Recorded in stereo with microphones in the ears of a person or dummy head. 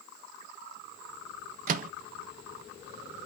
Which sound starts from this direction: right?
A microwave, at 1.7 s.